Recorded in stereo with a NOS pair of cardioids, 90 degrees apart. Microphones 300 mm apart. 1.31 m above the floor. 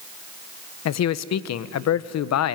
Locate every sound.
0.8 s a man speaking: 60° left, 0.9 m